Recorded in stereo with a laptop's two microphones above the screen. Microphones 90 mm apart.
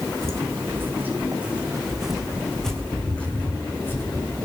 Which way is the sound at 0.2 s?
30° right (ahead or behind).